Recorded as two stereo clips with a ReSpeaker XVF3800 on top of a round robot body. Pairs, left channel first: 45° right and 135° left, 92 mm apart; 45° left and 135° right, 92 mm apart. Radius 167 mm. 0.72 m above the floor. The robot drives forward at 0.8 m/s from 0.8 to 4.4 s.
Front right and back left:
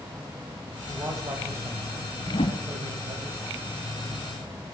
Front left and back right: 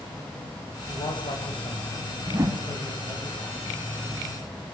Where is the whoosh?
65° right, 0.8 m; by 2.7 s 95° right, 0.8 m.